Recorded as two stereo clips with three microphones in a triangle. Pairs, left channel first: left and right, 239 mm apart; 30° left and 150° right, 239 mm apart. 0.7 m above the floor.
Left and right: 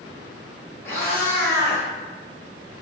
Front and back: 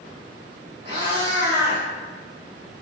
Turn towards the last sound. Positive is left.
turn(degrees=170)